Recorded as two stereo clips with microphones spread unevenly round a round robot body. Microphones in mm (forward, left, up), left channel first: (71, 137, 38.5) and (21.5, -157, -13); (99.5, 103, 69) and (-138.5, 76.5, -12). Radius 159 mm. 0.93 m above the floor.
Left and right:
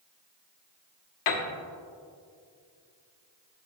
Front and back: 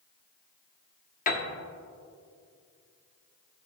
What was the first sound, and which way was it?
A piano, 60° left.